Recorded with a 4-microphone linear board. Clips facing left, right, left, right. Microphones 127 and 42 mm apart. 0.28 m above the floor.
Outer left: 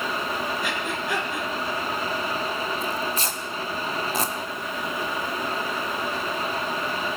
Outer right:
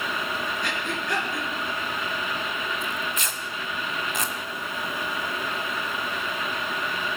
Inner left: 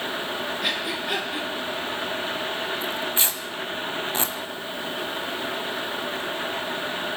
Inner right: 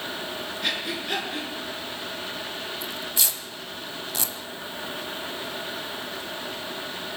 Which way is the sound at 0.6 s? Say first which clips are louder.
Outer left 2 dB, inner right 1 dB; 5° left (ahead or behind).